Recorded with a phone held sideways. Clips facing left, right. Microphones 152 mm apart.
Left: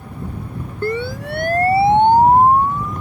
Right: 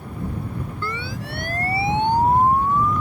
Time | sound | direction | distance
0.8 | a siren | 50° left (ahead or behind) | ?